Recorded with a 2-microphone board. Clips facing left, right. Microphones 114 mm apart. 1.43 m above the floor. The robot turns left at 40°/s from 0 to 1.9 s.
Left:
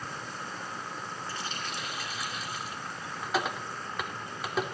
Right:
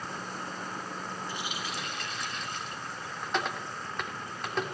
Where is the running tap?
20° right (ahead or behind), 2.5 m; by 4.8 s 5° left (ahead or behind), 2.5 m.